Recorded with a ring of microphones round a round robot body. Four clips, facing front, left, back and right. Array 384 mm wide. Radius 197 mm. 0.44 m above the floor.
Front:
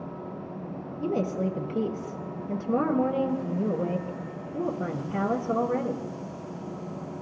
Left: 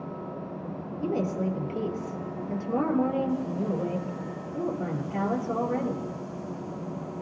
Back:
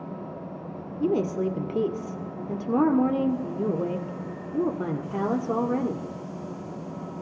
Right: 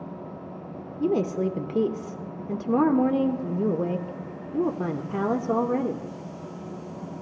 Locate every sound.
1.0 s a woman speaking: 120° right, 1.7 m